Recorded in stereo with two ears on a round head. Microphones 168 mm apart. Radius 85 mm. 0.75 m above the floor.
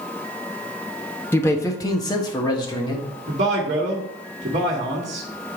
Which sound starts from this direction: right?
A man speaking, at 3.3 s.